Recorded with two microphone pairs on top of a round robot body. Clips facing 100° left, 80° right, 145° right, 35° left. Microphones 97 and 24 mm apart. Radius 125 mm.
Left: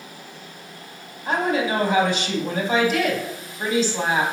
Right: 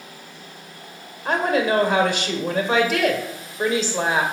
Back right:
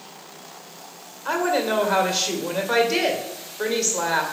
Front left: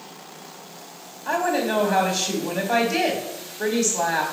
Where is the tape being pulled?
No tape being pulled in this recording.